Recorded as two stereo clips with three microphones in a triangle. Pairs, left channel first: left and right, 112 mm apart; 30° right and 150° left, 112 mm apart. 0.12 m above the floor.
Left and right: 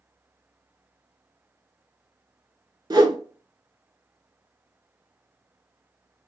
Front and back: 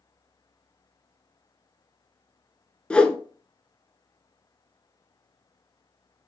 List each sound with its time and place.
2.9 s a whoosh: 105° right, 0.5 m